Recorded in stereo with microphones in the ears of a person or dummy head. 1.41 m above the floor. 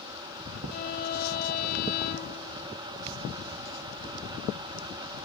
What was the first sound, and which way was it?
A violin, 45° left (ahead or behind).